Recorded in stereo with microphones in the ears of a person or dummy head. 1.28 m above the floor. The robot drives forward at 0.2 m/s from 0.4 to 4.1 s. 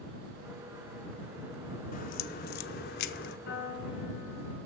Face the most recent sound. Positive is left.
turn(degrees=50)  # may be behind; listen again after turning